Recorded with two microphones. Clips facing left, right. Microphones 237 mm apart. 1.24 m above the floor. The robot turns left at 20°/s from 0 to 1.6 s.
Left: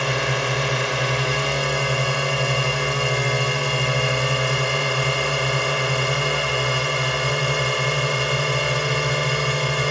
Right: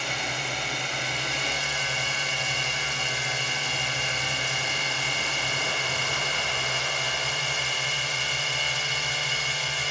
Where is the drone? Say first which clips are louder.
Left 11 dB; 100° left; by 9.9 s 70° left.